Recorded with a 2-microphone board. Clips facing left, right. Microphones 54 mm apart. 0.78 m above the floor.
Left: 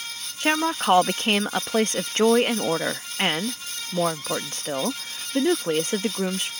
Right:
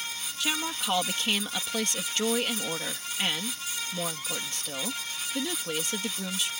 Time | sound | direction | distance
0.4 | a woman speaking | 40° left (ahead or behind) | ?